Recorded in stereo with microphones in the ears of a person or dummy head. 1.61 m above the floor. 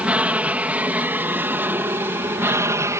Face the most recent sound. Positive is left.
turn(degrees=-15)  # may be behind; listen again after turning